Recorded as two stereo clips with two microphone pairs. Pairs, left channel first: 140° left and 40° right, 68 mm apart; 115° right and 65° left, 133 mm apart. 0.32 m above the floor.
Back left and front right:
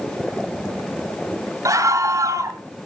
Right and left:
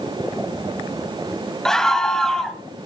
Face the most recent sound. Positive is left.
turn(degrees=-30)